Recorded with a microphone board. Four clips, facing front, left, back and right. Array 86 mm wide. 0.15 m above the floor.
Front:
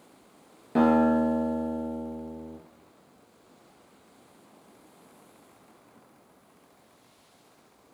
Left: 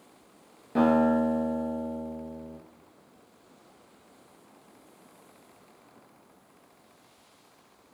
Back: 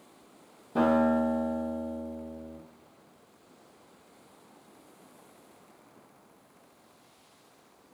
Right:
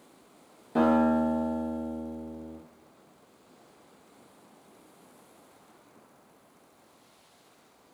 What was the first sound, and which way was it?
A guitar, 10° left.